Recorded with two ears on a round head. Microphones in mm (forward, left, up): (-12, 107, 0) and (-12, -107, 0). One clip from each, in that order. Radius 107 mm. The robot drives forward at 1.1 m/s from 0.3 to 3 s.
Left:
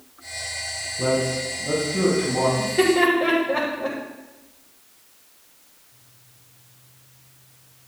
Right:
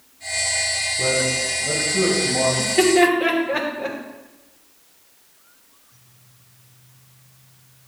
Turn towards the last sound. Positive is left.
turn(degrees=-75)  # may be behind; listen again after turning